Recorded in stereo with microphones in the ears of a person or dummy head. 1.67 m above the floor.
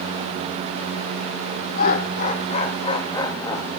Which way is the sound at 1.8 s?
50° left (ahead or behind).